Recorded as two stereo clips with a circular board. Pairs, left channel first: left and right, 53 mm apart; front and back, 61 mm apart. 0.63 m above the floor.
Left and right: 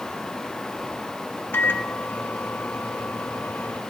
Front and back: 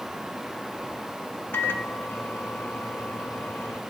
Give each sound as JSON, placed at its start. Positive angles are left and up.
{"t": 1.5, "sound": "a microwave", "azimuth_deg": 50, "distance_m": 1.5}